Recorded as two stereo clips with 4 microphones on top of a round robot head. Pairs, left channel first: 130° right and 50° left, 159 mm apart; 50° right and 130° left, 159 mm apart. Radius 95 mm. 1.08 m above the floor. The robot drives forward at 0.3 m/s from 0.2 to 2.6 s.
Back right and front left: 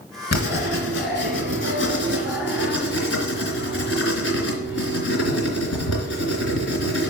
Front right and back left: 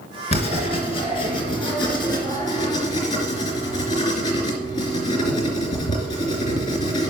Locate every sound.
0.3 s writing: 100° right, 2.5 m; by 7.1 s 115° right, 3 m